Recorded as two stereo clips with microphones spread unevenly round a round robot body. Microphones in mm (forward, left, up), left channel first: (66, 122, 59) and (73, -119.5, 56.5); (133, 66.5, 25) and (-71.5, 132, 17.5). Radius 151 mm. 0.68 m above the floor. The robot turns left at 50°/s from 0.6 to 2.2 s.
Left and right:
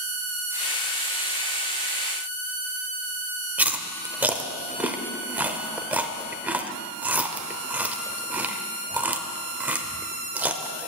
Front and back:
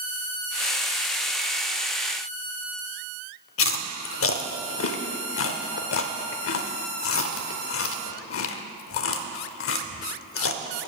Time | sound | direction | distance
3.6 | chewing | 5° right | 0.8 m